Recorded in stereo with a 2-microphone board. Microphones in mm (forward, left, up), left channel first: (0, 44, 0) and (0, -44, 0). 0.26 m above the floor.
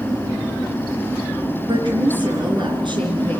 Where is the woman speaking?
65° right (ahead or behind), 4 m.